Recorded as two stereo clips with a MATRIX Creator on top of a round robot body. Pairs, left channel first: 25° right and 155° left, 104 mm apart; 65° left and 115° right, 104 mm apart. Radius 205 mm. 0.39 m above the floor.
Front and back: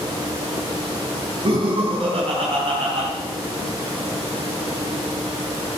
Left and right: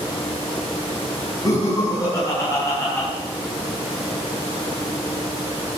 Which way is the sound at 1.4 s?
120° left.